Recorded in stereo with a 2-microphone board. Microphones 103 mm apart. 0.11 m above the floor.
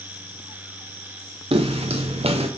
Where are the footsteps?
75° right (ahead or behind), 0.7 m.